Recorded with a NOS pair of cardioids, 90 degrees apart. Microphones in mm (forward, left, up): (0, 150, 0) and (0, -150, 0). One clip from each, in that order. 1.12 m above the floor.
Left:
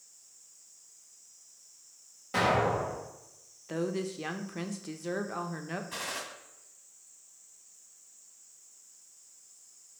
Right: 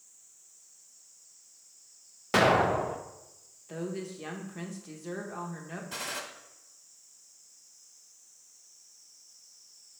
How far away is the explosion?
About 0.7 m.